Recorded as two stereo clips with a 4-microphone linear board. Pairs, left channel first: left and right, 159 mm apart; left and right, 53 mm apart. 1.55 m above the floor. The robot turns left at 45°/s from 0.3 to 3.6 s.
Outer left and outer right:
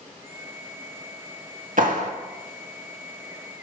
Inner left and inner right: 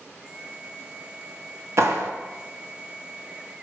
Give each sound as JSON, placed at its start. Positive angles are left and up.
{"t": 1.8, "sound": "a clap", "side_deg": -60, "distance_m": 1.8}